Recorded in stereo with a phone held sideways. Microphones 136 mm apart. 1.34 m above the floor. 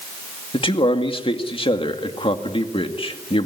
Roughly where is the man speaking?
Left.